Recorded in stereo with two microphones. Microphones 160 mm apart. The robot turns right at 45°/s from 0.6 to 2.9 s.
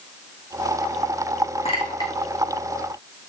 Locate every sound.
1.6 s a clink: 45° left (ahead or behind), 4.5 m; by 2.1 s 20° left (ahead or behind), 4.5 m